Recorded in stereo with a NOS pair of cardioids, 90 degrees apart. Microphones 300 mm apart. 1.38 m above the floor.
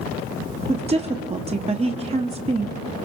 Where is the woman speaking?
20° right, 1.0 m.